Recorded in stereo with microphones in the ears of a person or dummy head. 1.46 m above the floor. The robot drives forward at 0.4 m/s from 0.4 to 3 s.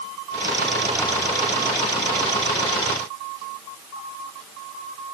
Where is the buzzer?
I don't hear a buzzer.